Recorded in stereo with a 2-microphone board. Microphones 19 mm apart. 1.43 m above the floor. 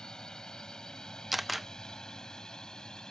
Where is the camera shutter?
5° right (ahead or behind).